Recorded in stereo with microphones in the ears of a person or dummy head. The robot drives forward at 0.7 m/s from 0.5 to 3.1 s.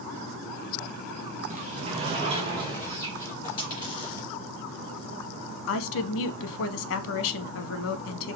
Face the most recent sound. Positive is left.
turn(degrees=70)  # may be behind; listen again after turning